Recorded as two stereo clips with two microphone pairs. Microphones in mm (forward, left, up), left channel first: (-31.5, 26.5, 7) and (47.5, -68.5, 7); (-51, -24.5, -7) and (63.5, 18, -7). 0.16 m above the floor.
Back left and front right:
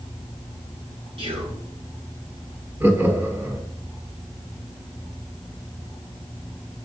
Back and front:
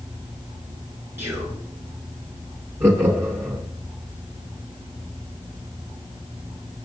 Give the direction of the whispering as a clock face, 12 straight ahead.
2 o'clock.